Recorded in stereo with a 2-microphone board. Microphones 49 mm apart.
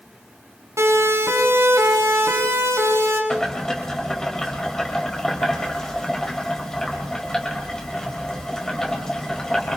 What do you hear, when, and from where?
0.8 s a siren: 85° right, 7 m; by 3.2 s 80° right, 7.5 m
3.3 s boiling: 10° left (ahead or behind), 5.5 m